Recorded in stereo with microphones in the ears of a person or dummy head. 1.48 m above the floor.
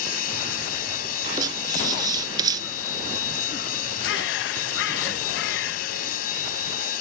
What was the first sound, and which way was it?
A machine running, 55° left (ahead or behind).